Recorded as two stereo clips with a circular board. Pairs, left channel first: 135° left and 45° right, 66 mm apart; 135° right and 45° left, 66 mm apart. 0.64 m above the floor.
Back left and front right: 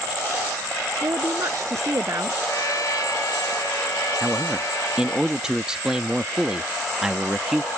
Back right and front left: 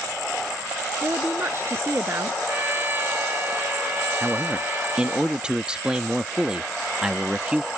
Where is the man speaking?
10° left.